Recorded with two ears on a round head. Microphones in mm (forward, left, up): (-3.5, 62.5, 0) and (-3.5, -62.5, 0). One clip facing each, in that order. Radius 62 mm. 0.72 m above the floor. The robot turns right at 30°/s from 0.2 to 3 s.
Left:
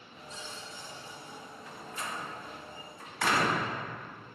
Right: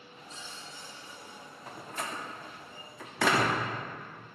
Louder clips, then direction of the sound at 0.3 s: Left 3 dB; 100° left.